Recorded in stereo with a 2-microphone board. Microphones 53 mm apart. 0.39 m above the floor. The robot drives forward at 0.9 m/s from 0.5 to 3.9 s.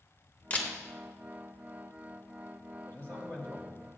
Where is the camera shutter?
30° left (ahead or behind), 1.1 m.